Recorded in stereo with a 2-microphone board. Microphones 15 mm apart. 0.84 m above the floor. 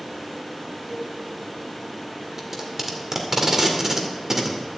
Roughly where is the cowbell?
Right.